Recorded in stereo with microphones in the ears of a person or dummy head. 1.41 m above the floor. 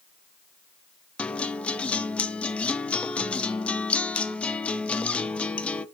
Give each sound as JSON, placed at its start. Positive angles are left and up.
{"t": 1.2, "sound": "a guitar", "side_deg": 0, "distance_m": 0.6}